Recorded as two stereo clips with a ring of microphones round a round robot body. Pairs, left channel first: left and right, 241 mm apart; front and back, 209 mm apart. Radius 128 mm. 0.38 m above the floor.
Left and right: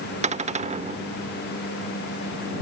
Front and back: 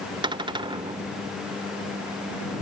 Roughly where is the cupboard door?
Behind right.